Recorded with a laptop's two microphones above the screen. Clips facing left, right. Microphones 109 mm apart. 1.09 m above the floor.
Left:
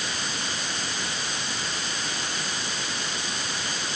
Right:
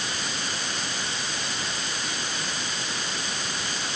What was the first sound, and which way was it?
Only background noise.